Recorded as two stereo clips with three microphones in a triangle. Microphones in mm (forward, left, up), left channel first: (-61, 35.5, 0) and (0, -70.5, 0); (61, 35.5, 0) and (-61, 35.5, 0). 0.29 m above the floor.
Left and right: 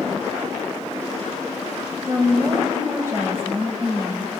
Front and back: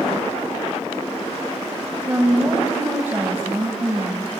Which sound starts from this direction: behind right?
A woman speaking, at 2.1 s.